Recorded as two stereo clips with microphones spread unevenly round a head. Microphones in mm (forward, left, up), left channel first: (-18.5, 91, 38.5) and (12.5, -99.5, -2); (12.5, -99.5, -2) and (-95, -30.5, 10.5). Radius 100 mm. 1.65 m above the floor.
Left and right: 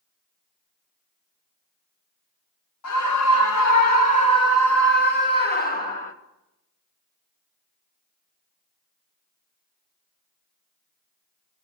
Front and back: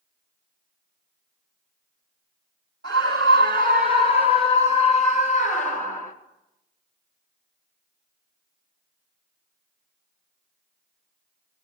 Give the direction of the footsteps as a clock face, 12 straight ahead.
No footsteps in this recording.